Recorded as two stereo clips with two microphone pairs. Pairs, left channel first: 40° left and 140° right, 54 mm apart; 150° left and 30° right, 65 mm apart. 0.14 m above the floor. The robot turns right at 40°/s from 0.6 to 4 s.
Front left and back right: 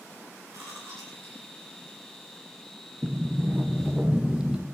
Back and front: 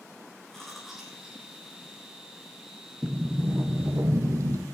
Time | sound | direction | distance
0.5 | chewing | 125° right | 10 m
3.0 | a sliding door | 105° right | 2 m